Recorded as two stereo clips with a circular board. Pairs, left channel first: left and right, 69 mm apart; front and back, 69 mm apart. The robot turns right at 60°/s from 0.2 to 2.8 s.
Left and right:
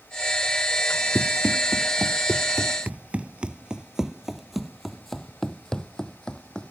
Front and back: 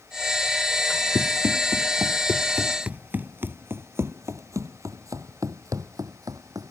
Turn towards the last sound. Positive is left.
turn(degrees=165)